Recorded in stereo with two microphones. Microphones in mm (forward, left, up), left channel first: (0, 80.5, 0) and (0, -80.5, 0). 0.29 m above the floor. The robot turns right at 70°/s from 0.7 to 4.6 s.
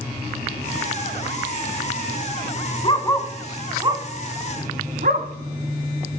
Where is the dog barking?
35° left (ahead or behind), 1.0 m; by 5.3 s 65° right (ahead or behind), 1.0 m.